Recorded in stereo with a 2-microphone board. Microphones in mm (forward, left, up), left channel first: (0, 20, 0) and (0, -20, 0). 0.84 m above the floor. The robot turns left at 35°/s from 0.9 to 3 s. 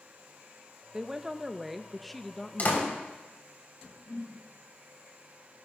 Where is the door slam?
45° left (ahead or behind), 3.5 m; by 2.9 s 55° left (ahead or behind), 3.5 m.